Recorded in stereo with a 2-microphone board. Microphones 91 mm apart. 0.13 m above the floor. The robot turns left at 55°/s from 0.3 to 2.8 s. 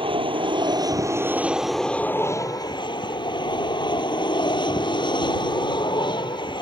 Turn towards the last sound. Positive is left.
turn(degrees=120)